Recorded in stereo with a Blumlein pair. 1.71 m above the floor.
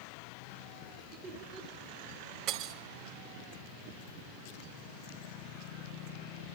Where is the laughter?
40° right, 2.0 m.